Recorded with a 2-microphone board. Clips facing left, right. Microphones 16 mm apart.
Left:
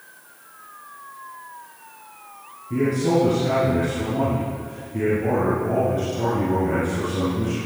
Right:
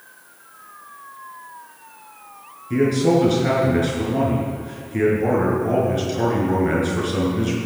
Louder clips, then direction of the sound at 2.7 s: Right 3 dB; 35° right (ahead or behind).